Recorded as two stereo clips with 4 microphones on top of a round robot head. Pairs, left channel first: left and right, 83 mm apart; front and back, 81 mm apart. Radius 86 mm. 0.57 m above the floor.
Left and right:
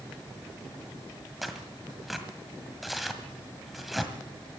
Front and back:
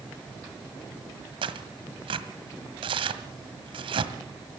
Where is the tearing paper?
Straight behind, 1.7 m.